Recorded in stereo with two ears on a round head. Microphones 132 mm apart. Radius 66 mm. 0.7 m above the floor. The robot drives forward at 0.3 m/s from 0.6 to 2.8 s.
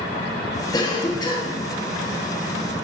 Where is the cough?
25° left (ahead or behind), 1.1 m; by 1.6 s 30° left (ahead or behind), 1.0 m.